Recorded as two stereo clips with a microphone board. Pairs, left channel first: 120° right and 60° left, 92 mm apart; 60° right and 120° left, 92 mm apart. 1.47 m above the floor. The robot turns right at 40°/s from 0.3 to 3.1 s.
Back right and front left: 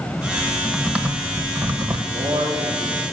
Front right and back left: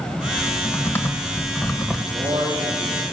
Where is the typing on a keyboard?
35° right, 1.6 m; by 2.0 s 30° left, 1.6 m.